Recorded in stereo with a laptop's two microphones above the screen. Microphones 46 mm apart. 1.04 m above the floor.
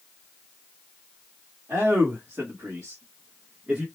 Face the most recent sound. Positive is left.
turn(degrees=-35)  # may be behind; listen again after turning